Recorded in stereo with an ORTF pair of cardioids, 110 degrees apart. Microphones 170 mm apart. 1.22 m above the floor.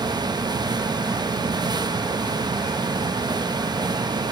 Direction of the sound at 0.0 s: 25° right.